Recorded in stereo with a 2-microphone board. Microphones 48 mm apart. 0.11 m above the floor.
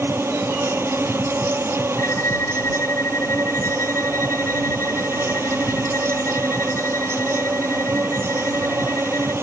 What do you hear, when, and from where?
0.0 s an insect: 65° right (ahead or behind)
2.0 s a violin: 60° left (ahead or behind)